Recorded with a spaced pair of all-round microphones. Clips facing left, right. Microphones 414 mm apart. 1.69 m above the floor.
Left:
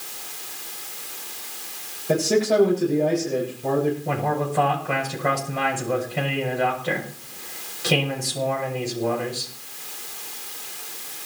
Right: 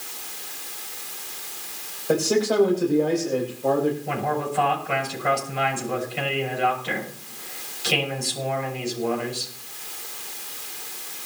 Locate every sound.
2.1 s a man speaking: 40° left (ahead or behind), 7 m
4.0 s a man speaking: 70° left (ahead or behind), 7 m